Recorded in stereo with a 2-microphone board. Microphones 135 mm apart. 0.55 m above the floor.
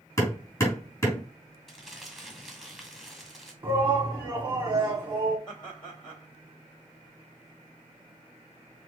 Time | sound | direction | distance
0.2 | hammering | 25° left (ahead or behind) | 3 m
1.7 | crumpling | 5° left (ahead or behind) | 1.9 m
3.6 | a shout | 35° right (ahead or behind) | 1.7 m
5.5 | laughter | 35° left (ahead or behind) | 3 m